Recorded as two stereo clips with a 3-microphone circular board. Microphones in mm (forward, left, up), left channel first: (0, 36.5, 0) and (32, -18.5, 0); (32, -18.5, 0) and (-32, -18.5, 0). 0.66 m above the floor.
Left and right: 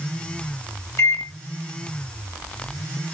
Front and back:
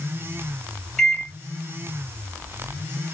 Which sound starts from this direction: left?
A microwave, at 1.0 s.